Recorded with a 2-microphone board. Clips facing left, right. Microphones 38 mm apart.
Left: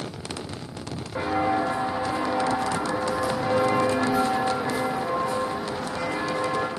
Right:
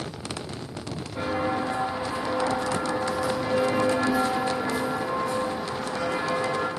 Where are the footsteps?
65° left (ahead or behind), 3 m; by 6.7 s 5° left (ahead or behind), 2.5 m.